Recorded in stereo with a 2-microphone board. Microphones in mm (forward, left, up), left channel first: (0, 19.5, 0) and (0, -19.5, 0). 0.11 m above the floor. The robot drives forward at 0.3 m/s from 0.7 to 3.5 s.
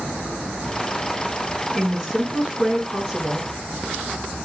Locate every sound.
1.8 s a woman speaking: 5° left (ahead or behind), 1.9 m